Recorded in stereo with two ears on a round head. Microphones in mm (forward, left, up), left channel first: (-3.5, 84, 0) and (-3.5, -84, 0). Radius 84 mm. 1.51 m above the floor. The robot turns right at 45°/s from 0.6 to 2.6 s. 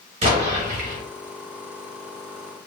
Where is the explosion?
40° right (ahead or behind), 1.9 m; by 1.0 s 50° right (ahead or behind), 1.9 m.